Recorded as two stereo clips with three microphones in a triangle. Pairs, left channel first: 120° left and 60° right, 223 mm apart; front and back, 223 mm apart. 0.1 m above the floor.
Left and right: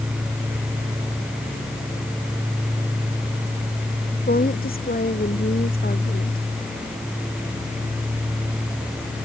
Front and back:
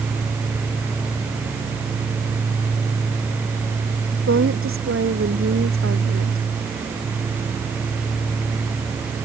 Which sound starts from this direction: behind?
A woman speaking, at 4.3 s.